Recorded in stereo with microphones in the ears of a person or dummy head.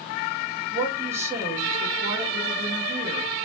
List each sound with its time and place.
0.7 s a woman speaking: 15° right (ahead or behind), 0.9 m